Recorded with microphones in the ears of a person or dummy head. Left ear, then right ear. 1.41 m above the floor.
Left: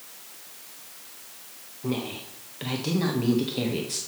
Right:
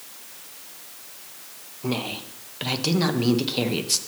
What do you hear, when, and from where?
1.8 s a woman speaking: 30° right (ahead or behind), 1.1 m